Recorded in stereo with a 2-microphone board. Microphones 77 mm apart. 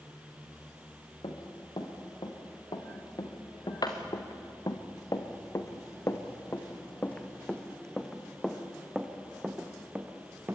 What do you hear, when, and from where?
1.2 s running footsteps: 75° left (ahead or behind), 4 m; by 10.6 s 25° right (ahead or behind), 3 m